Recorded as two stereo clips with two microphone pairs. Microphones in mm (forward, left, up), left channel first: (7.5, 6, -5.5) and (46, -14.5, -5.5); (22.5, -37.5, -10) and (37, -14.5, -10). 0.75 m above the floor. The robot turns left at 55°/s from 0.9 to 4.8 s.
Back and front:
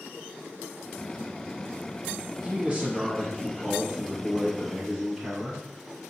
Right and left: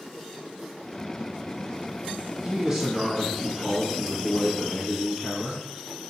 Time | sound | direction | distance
2.4 | a man speaking | 10° left | 1.2 m